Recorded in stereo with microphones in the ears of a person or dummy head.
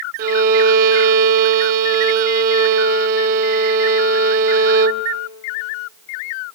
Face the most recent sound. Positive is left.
turn(degrees=-45)  # may be behind; listen again after turning